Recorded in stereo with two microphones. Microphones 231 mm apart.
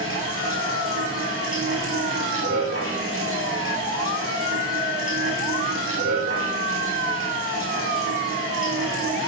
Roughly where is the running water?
Right.